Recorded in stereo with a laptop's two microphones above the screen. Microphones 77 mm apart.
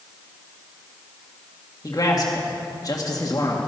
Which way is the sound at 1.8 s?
50° left (ahead or behind).